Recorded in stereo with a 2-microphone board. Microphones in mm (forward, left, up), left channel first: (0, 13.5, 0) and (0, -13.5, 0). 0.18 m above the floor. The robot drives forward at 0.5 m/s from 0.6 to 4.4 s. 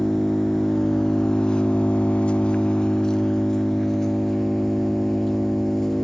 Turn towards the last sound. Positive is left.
turn(degrees=15)  # may be behind; listen again after turning